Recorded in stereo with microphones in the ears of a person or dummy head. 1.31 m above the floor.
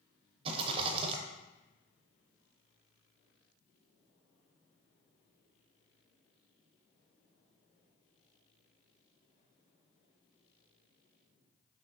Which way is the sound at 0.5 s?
35° right (ahead or behind).